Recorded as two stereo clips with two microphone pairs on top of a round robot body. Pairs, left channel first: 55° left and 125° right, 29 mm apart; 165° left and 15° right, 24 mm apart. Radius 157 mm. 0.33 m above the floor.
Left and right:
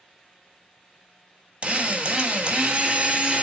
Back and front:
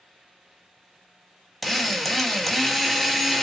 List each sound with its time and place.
1.6 s a drill: 100° right, 1.1 m